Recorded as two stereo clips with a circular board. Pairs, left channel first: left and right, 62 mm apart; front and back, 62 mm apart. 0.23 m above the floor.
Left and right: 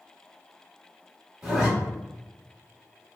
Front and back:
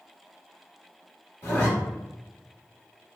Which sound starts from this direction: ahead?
A zipper, at 1.4 s.